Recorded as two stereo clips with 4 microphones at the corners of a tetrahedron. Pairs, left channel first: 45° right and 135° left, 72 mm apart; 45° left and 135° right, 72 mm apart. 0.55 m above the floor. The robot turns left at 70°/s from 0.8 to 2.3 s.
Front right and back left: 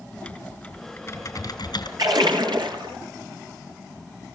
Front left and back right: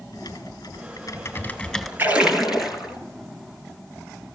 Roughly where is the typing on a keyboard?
Ahead left.